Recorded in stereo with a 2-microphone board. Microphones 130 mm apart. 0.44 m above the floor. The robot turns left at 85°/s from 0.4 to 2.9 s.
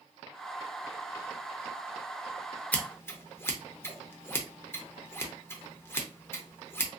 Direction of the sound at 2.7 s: 10° left (ahead or behind).